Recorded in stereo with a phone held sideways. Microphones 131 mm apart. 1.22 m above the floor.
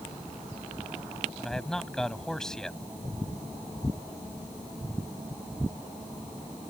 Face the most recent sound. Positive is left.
turn(degrees=5)  # may be behind; listen again after turning